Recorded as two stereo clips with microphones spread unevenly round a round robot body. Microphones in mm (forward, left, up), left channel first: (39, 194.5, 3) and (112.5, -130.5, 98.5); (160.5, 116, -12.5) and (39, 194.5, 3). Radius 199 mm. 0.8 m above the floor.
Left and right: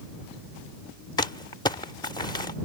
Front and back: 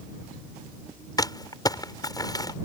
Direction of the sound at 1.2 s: 30° left.